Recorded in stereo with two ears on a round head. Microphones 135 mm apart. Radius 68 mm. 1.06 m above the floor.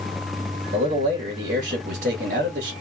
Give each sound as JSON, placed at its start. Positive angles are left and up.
{"t": 0.7, "sound": "a man speaking", "side_deg": -60, "distance_m": 1.6}